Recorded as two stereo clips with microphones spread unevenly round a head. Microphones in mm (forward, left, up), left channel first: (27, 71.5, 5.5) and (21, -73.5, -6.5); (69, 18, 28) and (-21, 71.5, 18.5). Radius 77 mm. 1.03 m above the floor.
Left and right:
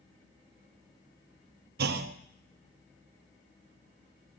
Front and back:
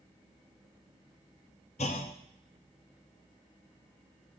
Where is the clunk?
80° right, 0.6 m.